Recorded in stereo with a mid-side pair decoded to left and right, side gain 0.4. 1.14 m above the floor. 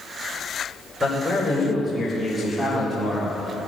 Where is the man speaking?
10° left, 5 m; by 3.4 s 5° right, 4 m.